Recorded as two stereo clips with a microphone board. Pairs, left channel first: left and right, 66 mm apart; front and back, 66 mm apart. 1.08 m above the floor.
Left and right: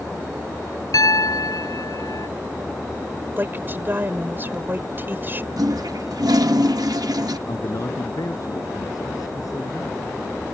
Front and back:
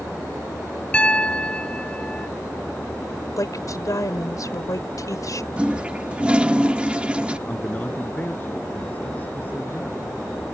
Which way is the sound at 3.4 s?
35° right.